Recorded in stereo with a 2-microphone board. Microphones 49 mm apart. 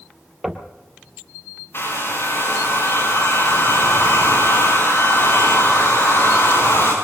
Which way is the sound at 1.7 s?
55° left (ahead or behind).